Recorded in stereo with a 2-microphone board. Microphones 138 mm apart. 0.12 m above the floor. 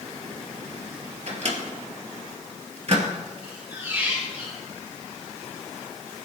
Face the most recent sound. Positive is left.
turn(degrees=-15)  # may be behind; listen again after turning